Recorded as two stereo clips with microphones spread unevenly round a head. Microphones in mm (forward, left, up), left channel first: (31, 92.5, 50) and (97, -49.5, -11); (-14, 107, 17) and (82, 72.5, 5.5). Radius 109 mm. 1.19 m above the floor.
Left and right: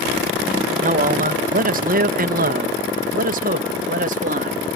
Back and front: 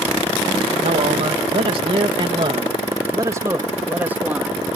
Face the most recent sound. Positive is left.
turn(degrees=-105)